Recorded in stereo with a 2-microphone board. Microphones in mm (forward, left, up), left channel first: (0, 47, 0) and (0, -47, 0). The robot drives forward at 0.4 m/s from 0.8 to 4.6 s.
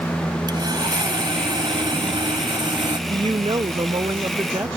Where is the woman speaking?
55° right (ahead or behind); by 4.8 s 35° right (ahead or behind).